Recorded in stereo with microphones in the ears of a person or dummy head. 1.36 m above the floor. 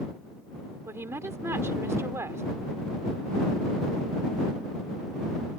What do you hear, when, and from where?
0.9 s a woman speaking: 15° right (ahead or behind)